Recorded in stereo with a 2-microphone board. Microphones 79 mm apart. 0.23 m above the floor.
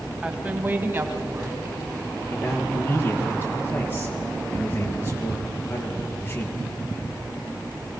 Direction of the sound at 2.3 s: 25° left (ahead or behind).